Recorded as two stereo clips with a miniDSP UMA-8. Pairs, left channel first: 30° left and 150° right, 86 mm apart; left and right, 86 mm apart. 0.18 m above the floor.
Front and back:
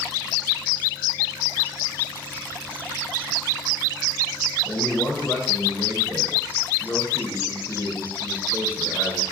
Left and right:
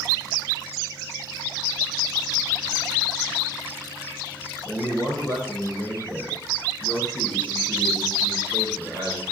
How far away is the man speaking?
About 1.2 m.